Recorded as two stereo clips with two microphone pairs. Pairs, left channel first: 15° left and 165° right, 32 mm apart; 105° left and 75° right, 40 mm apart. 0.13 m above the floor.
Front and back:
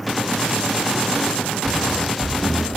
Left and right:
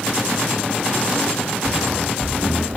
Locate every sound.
1.6 s running footsteps: 55° right, 1.5 m; by 2.8 s 40° right, 0.9 m